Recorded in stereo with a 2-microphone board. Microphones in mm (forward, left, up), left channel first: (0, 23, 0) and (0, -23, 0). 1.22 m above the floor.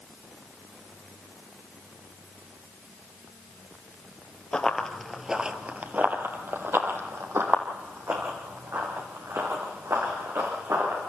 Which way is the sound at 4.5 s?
20° left (ahead or behind).